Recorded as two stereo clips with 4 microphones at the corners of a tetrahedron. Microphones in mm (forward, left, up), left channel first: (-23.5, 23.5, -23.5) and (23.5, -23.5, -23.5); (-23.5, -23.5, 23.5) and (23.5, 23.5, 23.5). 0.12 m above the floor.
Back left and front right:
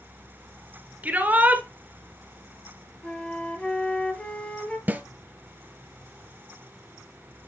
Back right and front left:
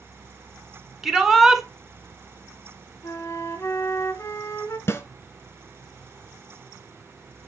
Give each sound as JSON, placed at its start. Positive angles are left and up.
{"t": 1.0, "sound": "a shout", "azimuth_deg": -30, "distance_m": 1.1}
{"t": 3.0, "sound": "a flute", "azimuth_deg": -165, "distance_m": 0.8}
{"t": 4.9, "sound": "a snare drum", "azimuth_deg": -95, "distance_m": 0.7}